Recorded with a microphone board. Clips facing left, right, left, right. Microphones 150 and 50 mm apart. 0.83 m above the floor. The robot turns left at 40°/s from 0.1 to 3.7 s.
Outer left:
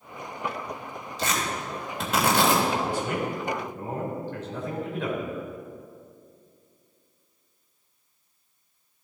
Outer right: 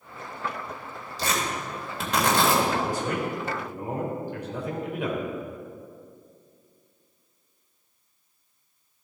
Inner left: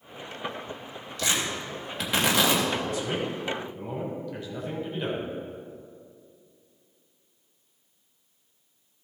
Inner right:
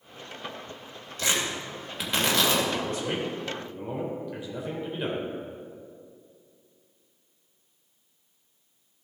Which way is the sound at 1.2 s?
35° right (ahead or behind).